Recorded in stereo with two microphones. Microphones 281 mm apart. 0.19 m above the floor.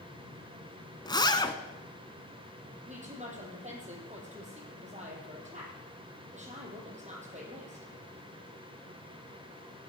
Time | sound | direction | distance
1.1 | a zipper | 15° left (ahead or behind) | 1.1 m
2.9 | a woman speaking | 25° right (ahead or behind) | 5 m